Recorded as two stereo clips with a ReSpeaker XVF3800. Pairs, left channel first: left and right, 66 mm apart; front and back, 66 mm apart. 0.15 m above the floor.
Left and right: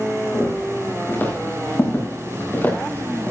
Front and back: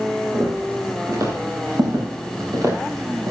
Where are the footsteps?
145° left, 8 m; by 3.3 s 155° left, 6.5 m.